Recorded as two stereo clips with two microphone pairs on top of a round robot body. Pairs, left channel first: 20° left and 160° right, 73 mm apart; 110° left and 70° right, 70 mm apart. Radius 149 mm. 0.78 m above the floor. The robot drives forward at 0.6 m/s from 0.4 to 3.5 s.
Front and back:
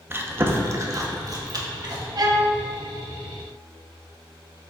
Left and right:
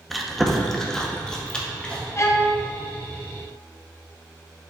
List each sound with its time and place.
0.1 s chewing: 160° right, 1.0 m; by 2.0 s 175° right, 1.6 m
2.2 s a violin: 165° left, 0.9 m